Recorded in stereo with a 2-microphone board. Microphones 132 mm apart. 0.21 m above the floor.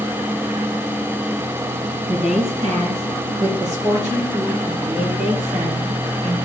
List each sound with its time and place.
2.1 s a woman speaking: 55° right (ahead or behind), 3 m; by 6.5 s 70° right (ahead or behind), 5.5 m